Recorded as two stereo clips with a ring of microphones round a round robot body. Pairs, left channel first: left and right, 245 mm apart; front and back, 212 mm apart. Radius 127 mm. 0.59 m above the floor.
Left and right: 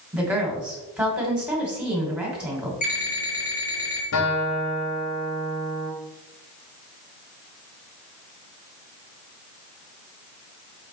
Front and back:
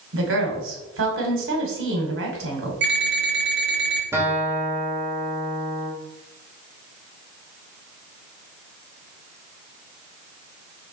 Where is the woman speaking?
175° right, 2.5 m.